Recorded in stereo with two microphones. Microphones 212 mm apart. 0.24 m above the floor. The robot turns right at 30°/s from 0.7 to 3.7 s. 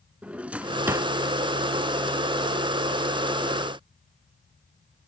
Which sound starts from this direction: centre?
A drawer, at 0.2 s.